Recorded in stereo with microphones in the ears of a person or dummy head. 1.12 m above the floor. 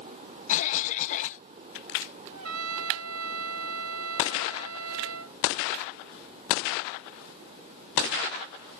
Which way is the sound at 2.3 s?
85° right.